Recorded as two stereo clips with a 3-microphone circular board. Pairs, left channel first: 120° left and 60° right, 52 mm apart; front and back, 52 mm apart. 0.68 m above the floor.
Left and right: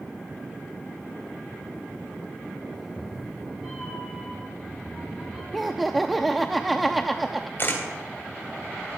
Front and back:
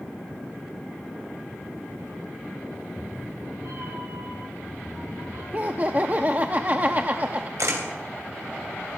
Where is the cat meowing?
140° right, 4 m; by 5.4 s 150° right, 7.5 m.